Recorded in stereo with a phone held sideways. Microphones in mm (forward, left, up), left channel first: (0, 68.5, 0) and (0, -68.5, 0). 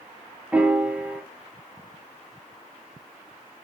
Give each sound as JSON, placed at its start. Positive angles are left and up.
{"t": 0.5, "sound": "a piano", "side_deg": -10, "distance_m": 0.9}